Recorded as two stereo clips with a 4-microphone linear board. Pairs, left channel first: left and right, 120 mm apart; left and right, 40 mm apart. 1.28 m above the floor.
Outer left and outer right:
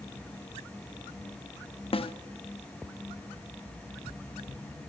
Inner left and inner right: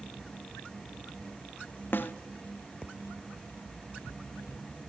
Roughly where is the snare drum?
Left.